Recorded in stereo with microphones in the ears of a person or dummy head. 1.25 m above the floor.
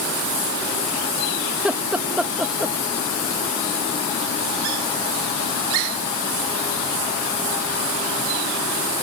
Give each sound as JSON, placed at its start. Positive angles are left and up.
{"t": 1.5, "sound": "laughter", "side_deg": -10}